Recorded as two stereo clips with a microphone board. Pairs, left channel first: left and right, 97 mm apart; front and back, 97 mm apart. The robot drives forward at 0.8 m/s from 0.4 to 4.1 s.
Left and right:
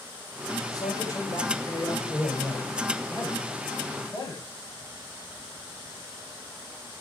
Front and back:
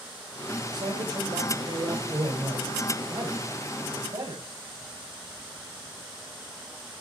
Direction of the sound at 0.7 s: 140° left.